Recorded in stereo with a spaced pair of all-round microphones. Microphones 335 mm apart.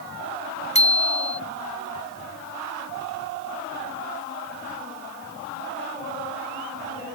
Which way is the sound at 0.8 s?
20° left (ahead or behind).